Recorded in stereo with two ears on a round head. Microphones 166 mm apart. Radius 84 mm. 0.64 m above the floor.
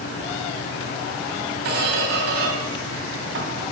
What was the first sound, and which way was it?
A squeak, 55° right (ahead or behind).